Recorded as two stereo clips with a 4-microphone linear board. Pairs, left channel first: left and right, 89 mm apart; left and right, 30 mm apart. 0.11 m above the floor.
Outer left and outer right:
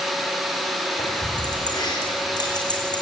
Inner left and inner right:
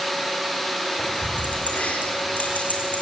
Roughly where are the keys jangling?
Left.